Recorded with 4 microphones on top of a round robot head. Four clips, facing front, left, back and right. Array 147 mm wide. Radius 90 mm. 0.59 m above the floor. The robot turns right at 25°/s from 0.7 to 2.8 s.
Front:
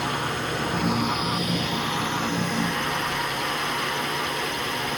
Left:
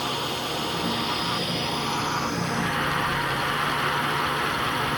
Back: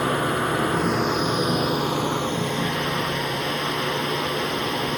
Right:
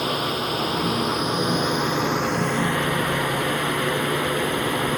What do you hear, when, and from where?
0.0 s a drone: 165° right; by 5.0 s 110° right